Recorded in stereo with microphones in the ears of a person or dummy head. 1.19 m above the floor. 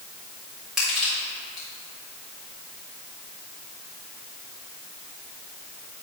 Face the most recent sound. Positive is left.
turn(degrees=0)  # may be behind; listen again after turning